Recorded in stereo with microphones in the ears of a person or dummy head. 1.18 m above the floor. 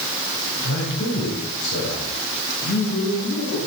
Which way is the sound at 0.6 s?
60° left (ahead or behind).